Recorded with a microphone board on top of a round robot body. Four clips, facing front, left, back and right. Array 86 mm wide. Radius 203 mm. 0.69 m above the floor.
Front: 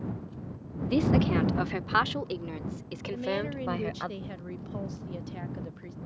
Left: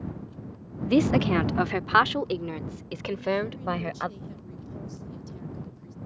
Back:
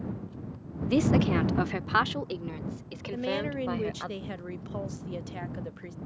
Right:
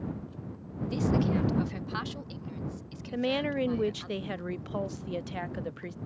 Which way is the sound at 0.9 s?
105° left.